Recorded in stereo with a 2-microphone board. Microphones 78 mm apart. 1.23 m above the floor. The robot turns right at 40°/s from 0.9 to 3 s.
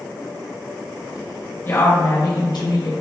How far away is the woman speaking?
About 1.3 m.